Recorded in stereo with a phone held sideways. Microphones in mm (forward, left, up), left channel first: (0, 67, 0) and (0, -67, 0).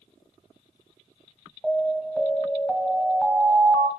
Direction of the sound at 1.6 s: Centre (ahead or behind).